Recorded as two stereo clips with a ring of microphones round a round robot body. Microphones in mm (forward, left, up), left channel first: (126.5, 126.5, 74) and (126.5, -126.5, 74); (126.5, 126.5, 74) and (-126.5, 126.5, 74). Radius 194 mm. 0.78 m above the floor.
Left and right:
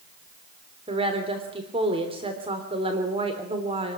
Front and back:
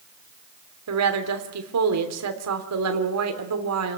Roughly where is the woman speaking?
Behind.